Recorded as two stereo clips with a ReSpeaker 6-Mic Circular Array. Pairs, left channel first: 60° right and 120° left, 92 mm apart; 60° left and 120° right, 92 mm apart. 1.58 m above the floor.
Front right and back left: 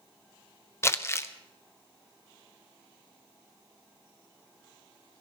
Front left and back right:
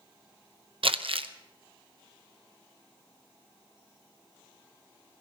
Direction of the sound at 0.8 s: 120° right.